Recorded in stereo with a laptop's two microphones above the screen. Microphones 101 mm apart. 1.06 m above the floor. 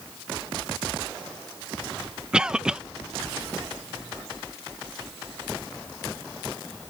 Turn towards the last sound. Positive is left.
turn(degrees=-10)  # may be behind; listen again after turning